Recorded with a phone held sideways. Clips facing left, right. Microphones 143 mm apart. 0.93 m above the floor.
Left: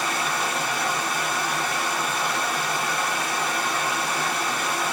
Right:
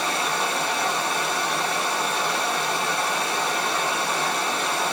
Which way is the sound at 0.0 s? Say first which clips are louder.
Right 1 dB; 30° right (ahead or behind).